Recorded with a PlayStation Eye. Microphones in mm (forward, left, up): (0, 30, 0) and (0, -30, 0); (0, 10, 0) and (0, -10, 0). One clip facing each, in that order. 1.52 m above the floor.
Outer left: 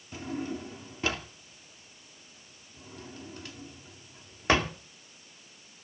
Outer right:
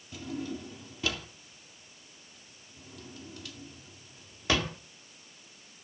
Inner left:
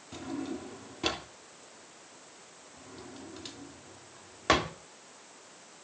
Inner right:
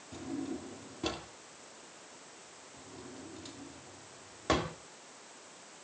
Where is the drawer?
35° left (ahead or behind), 1.7 m.